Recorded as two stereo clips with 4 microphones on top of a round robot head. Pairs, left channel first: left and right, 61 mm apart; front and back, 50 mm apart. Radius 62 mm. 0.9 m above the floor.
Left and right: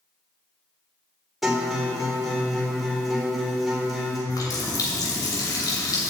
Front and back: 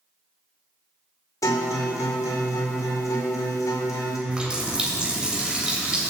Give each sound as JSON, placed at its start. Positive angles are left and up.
{"t": 1.4, "sound": "a guitar", "azimuth_deg": 0, "distance_m": 1.8}
{"t": 4.3, "sound": "a running tap", "azimuth_deg": 110, "distance_m": 2.5}